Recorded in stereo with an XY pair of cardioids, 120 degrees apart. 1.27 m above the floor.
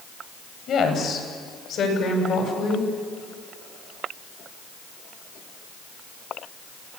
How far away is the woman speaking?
About 7.5 m.